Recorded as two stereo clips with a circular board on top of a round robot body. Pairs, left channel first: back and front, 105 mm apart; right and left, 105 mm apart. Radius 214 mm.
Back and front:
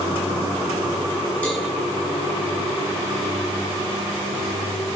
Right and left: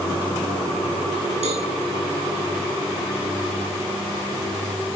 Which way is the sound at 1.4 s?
100° left.